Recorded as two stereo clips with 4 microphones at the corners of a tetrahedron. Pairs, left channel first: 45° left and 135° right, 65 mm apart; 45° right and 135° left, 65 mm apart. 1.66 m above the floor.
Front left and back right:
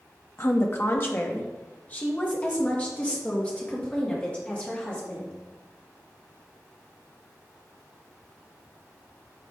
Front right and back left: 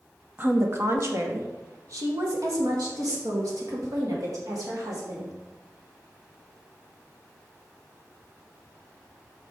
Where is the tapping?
I don't hear tapping.